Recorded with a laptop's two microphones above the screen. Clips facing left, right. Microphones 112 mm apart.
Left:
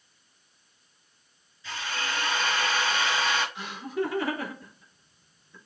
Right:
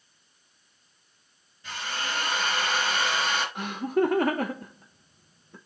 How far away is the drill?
About 5.5 m.